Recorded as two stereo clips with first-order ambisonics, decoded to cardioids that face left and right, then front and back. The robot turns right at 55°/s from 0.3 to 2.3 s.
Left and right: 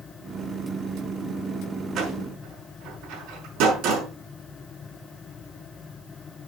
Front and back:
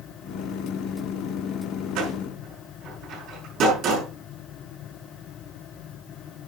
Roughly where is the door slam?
Behind right.